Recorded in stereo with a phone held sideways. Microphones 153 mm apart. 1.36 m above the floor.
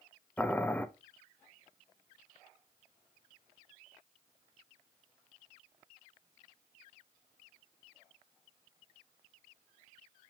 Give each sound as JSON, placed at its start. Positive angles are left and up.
{"t": 0.4, "sound": "boiling", "side_deg": 10, "distance_m": 0.6}